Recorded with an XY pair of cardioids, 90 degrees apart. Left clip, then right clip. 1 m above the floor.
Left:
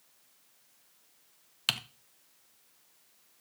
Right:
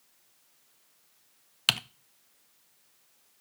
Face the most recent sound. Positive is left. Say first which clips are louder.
# right 5 dB
turn(degrees=-40)